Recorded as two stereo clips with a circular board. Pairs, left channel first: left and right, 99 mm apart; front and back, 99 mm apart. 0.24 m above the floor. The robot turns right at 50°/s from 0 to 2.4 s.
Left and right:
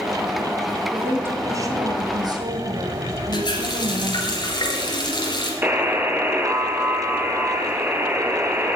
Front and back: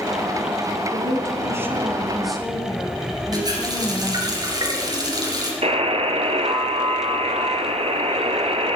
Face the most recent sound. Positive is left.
turn(degrees=-165)